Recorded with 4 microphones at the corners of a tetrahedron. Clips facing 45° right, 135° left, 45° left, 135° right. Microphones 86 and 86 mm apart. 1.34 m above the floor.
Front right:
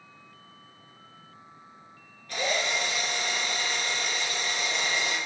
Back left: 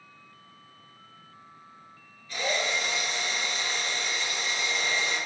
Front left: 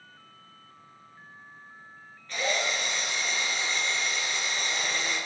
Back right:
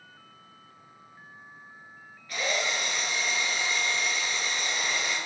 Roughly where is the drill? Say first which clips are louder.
Even, front left 1 dB; ahead right.